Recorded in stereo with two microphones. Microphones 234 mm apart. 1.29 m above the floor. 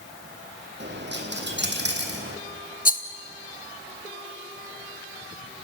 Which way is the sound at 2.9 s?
35° left (ahead or behind).